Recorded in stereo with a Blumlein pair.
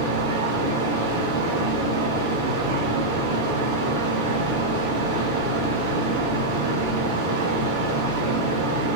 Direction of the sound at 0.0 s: 60° right.